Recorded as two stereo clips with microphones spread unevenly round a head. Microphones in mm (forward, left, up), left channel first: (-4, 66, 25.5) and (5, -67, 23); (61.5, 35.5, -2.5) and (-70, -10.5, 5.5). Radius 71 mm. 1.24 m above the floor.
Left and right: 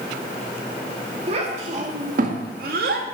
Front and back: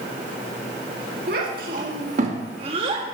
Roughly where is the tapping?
No tapping in this recording.